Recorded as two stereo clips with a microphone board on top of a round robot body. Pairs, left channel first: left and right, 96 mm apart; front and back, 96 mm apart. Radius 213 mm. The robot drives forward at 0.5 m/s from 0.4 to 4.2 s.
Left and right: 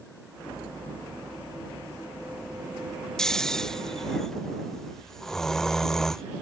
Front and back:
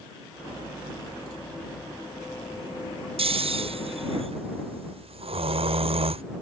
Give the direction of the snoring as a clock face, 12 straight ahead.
6 o'clock.